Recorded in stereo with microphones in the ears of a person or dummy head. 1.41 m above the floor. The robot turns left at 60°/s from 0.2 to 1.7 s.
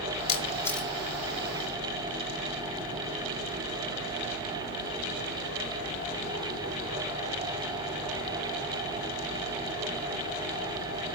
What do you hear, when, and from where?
0.3 s a camera shutter: 30° left (ahead or behind), 1.4 m; by 0.9 s 5° right (ahead or behind), 1.4 m